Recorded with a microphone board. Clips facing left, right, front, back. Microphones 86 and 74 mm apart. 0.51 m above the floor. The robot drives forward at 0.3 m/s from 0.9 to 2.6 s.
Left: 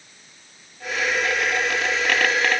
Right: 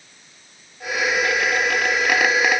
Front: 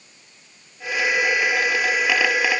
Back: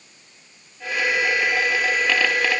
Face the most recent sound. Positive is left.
No sound to turn to.